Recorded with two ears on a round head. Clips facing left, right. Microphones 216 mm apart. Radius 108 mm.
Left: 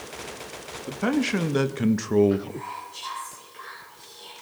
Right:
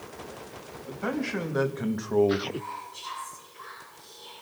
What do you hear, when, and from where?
0.9 s a man speaking: 55° left (ahead or behind), 1.4 m; by 2.4 s 25° left (ahead or behind), 0.8 m
2.5 s whispering: 75° left (ahead or behind), 7.5 m